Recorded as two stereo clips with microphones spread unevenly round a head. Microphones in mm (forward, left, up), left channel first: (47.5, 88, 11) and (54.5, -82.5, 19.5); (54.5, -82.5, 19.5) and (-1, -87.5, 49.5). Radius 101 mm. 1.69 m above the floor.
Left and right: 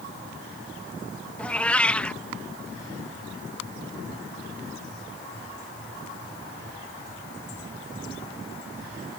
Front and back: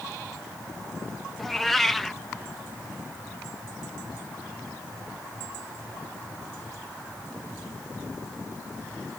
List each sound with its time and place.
1.4 s a cat meowing: 175° left